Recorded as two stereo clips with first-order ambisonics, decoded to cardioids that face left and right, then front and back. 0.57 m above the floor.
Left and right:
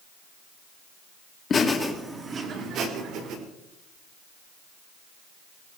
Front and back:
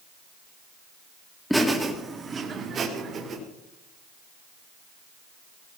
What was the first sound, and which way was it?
Laughter, 90° left.